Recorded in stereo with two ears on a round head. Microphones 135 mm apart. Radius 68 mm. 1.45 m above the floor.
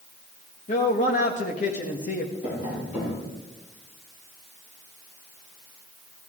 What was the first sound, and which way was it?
A man speaking, 50° left (ahead or behind).